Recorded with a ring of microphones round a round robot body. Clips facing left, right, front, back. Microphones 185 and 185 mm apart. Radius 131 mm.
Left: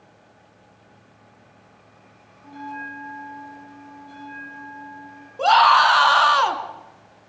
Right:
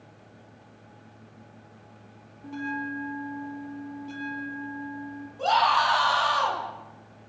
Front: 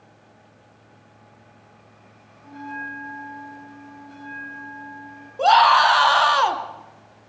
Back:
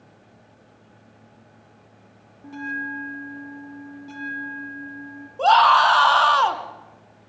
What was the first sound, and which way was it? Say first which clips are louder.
A bell: right 4 dB, back 3 dB; 140° right.